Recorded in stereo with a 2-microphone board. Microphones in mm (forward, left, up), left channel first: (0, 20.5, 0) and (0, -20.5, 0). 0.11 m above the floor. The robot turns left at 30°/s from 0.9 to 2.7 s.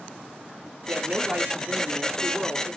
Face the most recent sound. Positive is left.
turn(degrees=175)